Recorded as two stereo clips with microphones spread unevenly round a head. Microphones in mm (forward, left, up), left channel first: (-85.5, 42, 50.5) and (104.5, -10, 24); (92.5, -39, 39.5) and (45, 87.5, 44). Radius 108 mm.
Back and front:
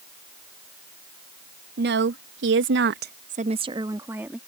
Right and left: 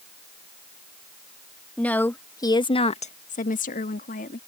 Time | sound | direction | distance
1.8 | a woman speaking | 10° left | ?